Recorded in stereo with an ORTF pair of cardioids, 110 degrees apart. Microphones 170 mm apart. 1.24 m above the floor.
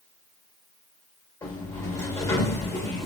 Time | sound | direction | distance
1.4 | a sliding door | 15° left | 1.2 m